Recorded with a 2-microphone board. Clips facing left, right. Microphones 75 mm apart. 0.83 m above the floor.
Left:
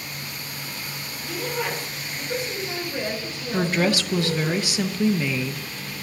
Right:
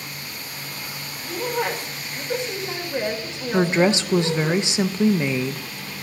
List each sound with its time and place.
1.2 s a woman speaking: 25° right (ahead or behind), 2.5 m
3.5 s a woman speaking: 25° right (ahead or behind), 0.6 m